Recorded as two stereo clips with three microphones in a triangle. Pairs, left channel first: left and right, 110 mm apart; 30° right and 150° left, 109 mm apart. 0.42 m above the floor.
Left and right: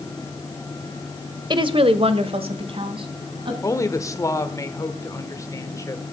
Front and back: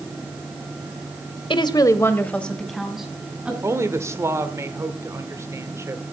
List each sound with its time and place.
1.5 s a woman speaking: 55° right, 1.3 m; by 3.5 s 130° right, 3.5 m
3.6 s a woman speaking: 115° left, 1.4 m